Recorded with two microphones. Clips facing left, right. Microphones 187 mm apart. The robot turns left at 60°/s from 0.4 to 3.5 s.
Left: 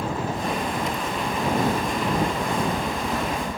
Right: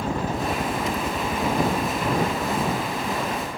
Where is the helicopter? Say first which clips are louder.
Right 1 dB; 85° right; by 3.6 s 90° left.